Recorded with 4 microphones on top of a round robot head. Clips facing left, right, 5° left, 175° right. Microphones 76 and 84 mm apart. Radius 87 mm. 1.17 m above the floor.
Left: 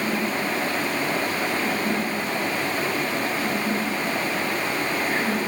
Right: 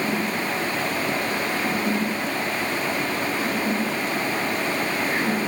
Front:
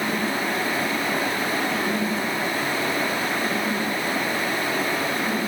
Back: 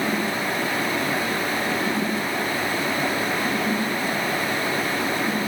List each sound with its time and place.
Only background noise.